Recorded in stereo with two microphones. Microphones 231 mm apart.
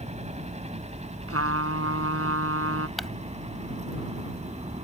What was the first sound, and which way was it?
A helicopter, 25° right (ahead or behind).